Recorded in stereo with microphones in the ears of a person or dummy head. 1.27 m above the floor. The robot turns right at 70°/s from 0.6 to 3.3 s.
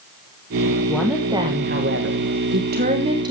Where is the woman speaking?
165° left, 1.3 m; by 3.3 s 25° right, 1.3 m.